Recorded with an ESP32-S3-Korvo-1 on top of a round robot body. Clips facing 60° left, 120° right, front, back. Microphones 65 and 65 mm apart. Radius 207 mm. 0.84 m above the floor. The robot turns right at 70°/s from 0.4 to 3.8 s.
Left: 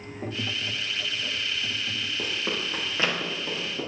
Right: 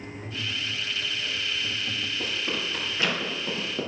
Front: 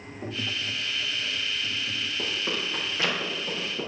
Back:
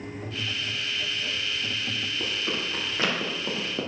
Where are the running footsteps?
45° left, 3.5 m; by 3.9 s 170° right, 2.5 m.